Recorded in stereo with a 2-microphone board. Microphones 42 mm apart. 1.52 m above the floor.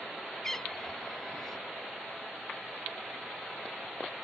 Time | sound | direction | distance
0.4 | a cat meowing | 10° left (ahead or behind) | ?